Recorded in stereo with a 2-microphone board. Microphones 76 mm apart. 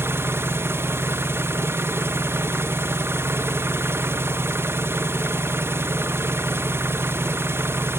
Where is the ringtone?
I don't hear a ringtone.